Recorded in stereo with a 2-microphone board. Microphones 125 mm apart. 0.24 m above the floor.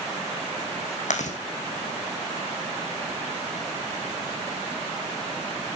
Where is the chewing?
80° left, 2.5 m.